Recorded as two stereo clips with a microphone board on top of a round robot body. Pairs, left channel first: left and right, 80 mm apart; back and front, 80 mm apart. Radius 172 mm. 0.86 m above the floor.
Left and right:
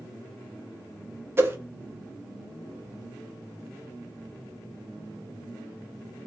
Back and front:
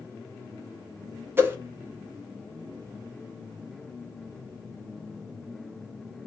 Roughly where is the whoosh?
Ahead right.